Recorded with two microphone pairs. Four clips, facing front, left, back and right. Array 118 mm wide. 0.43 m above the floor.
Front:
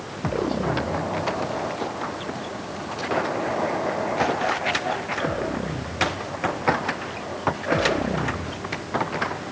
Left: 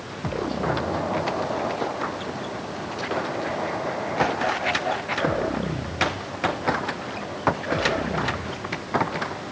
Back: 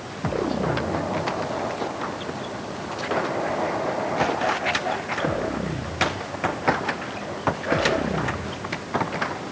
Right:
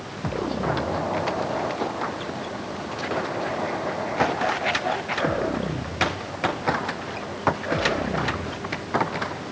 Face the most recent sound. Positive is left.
No sound to turn to.